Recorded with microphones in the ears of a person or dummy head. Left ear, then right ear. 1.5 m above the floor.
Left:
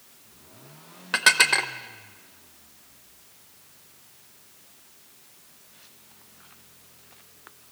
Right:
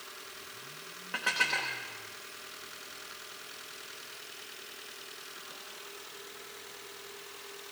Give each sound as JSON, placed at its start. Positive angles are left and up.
{"t": 1.1, "sound": "dishes clattering", "side_deg": 55, "distance_m": 0.9}